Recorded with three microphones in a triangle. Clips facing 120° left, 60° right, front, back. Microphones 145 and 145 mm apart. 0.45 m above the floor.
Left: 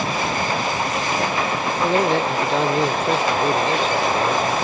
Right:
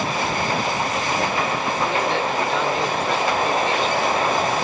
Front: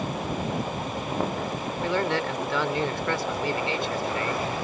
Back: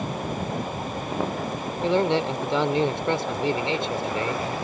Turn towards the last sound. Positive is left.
turn(degrees=130)